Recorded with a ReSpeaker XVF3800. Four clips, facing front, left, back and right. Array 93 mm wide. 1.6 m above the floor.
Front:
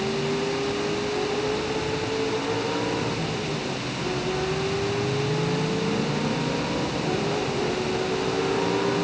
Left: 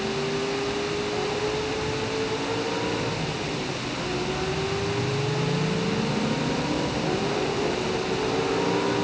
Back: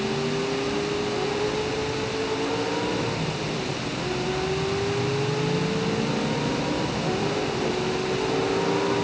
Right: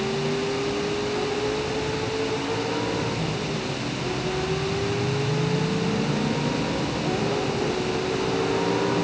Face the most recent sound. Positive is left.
No sound to turn to.